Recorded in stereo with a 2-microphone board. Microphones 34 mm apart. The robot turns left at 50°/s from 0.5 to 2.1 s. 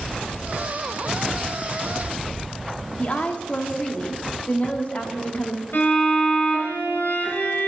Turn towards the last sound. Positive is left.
turn(degrees=70)  # may be behind; listen again after turning